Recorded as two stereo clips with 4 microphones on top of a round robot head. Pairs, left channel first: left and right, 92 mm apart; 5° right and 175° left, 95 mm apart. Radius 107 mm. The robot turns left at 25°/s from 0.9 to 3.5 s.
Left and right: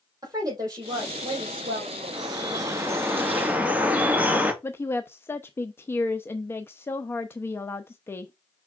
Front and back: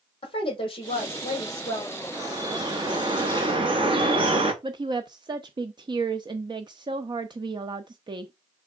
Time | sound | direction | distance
0.2 | a woman speaking | 40° right | 4 m
2.1 | dripping | 130° right | 1.6 m
4.6 | a woman speaking | 150° left | 0.7 m